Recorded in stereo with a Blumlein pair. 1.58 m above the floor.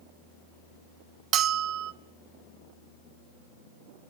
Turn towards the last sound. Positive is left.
turn(degrees=-35)